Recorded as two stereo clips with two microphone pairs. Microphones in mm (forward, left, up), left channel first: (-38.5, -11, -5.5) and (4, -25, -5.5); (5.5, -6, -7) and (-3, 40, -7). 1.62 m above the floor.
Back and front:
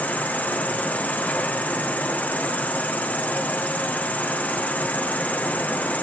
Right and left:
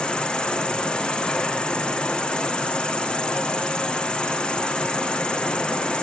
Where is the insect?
145° right, 1.4 m.